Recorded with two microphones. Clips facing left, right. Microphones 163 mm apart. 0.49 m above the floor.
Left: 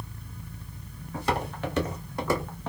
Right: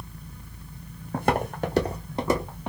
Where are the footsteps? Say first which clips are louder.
Right 4 dB; 60° right (ahead or behind), 0.9 m; by 2.7 s 10° right (ahead or behind), 1.2 m.